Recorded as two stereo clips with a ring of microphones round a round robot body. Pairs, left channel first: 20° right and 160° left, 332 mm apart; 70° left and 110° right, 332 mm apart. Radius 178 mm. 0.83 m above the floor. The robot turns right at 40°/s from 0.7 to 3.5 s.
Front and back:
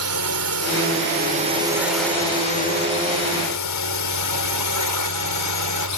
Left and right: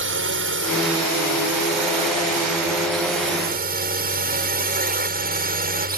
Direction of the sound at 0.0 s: 165° right.